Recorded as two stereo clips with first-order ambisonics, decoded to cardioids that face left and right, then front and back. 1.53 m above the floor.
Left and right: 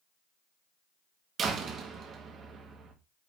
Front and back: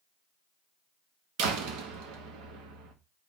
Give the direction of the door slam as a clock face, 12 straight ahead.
5 o'clock.